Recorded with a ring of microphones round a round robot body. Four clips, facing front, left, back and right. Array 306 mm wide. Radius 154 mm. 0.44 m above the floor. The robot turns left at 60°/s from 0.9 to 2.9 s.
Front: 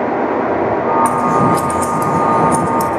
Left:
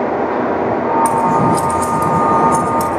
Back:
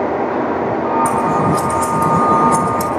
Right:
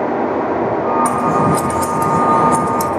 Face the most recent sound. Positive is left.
turn(degrees=-95)